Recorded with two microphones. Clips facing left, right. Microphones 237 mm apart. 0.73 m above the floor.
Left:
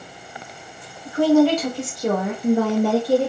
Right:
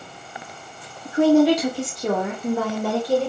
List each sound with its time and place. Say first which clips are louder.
1.1 s a woman speaking: even; 25° right (ahead or behind), 1.1 m; by 3.3 s 35° left (ahead or behind), 1.2 m